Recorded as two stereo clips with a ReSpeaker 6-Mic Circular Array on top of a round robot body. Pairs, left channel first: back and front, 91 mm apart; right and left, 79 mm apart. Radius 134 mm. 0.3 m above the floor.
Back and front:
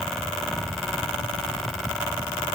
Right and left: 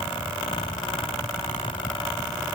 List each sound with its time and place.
Only background noise.